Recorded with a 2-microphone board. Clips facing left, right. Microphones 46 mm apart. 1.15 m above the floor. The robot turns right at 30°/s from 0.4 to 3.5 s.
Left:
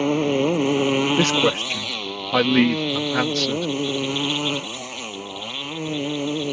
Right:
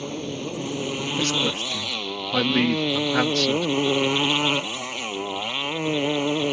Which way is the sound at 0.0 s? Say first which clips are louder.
Left 11 dB; 120° left.